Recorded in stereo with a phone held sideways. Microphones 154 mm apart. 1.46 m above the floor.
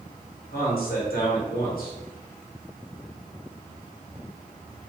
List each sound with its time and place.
0.5 s a man speaking: 75° left (ahead or behind), 2 m